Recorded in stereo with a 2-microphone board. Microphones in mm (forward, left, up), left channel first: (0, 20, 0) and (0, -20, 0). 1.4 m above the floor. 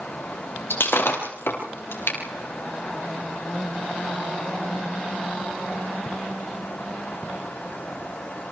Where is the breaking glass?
75° left (ahead or behind), 5 m.